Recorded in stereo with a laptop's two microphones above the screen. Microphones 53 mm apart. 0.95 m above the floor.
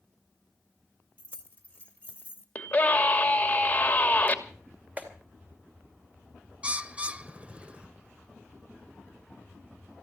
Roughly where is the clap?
Right.